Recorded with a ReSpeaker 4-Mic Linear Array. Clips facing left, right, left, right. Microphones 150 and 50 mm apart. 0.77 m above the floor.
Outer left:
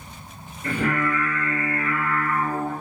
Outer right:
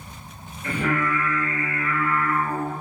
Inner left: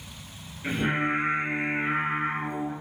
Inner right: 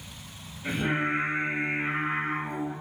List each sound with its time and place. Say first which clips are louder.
0.6 s singing: outer left 1 dB, inner left 1 dB; 40° left (ahead or behind), 1.3 m